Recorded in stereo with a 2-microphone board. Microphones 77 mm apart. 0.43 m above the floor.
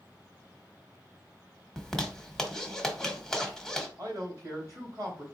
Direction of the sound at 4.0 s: 40° right (ahead or behind).